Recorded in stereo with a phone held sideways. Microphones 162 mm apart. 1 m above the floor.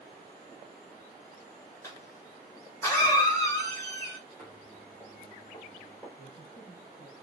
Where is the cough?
15° left (ahead or behind), 1.0 m.